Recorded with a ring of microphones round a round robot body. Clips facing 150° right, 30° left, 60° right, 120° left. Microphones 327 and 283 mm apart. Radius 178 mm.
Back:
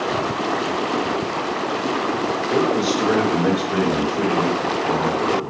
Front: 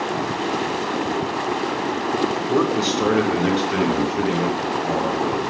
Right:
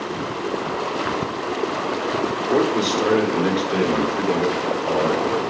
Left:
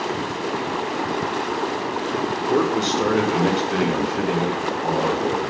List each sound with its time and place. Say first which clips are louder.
2.5 s a man speaking: back 2 dB, right 1 dB; 50° left, 1.4 m; by 5.4 s 80° left, 3 m